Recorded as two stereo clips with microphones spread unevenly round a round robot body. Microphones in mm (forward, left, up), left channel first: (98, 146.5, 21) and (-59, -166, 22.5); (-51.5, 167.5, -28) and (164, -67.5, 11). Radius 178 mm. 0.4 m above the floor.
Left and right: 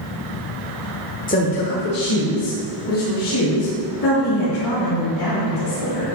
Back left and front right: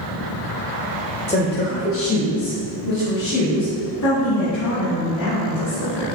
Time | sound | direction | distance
1.3 | a woman speaking | 105° left | 1.0 m